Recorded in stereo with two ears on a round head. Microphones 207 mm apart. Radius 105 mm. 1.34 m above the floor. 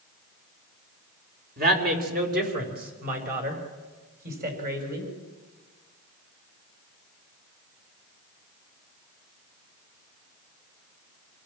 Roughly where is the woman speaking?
Right.